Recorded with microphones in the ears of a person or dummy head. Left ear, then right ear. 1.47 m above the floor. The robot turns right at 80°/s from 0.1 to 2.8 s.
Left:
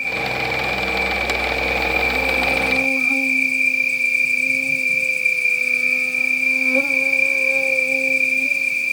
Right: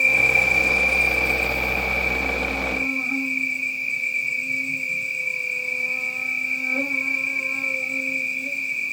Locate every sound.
0.0 s an insect: 140° right, 1.0 m; by 8.9 s 80° left, 1.0 m